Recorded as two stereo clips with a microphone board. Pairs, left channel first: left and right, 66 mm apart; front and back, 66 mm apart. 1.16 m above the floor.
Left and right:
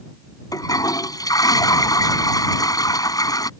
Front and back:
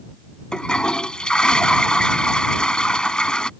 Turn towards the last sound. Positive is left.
turn(degrees=75)